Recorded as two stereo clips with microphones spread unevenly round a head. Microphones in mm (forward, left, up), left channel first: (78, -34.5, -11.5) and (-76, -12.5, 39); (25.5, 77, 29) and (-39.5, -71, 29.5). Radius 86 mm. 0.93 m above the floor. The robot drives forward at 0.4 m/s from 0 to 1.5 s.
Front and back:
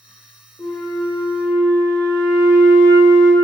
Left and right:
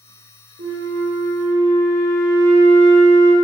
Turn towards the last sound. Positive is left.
turn(degrees=-115)